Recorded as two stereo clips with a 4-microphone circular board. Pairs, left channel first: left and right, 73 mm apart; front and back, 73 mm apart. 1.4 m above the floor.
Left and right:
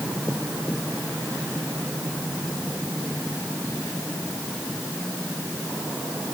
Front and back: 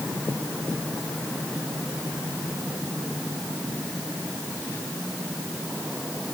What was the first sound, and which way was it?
Only background noise.